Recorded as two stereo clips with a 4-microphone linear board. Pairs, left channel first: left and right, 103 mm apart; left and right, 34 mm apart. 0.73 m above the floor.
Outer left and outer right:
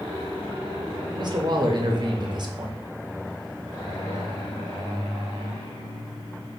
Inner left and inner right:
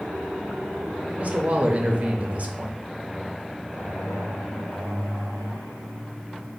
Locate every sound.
1.1 s a man speaking: 45° right (ahead or behind), 0.6 m